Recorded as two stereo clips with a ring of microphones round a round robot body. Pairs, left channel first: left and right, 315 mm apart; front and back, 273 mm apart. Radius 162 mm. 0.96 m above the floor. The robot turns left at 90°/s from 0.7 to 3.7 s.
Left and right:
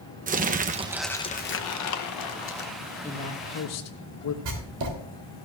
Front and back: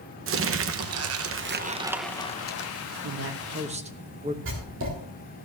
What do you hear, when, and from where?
0.3 s crumpling: 150° right, 0.8 m; by 2.7 s 30° left, 0.8 m
3.0 s a man speaking: 175° left, 1.1 m; by 4.3 s 115° left, 1.1 m
4.5 s writing: 125° right, 3.5 m